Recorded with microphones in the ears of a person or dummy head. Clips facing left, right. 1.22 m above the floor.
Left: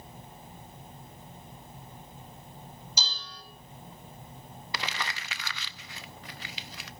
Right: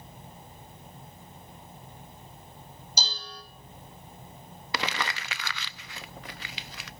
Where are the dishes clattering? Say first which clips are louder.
Right 6 dB; 35° right (ahead or behind), 6 m.